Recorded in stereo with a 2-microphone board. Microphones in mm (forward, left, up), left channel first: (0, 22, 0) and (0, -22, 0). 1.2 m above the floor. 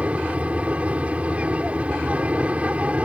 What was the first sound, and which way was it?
An aircraft, 30° right (ahead or behind).